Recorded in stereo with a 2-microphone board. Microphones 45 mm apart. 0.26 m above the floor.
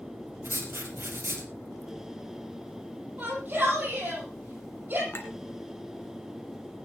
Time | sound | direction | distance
0.4 | writing | 65° right (ahead or behind) | 3 m
3.2 | a shout | 45° right (ahead or behind) | 8.5 m
5.1 | a clink | 60° left (ahead or behind) | 2.5 m